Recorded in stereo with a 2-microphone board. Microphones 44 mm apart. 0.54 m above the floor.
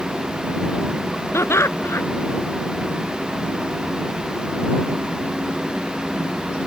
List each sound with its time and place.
1.3 s laughter: 70° left (ahead or behind)